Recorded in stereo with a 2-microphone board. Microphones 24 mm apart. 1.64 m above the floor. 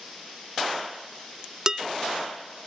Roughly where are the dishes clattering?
Right.